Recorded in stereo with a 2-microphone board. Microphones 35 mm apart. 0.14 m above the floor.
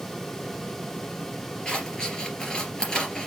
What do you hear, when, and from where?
1.6 s scissors: 20° left (ahead or behind), 3 m